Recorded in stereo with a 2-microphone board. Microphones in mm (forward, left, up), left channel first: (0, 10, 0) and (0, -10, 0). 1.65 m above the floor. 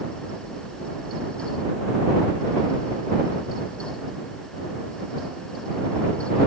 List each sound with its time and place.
Only background noise.